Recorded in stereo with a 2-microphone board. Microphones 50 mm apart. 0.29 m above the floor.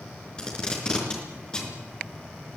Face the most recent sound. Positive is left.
turn(degrees=15)  # may be behind; listen again after turning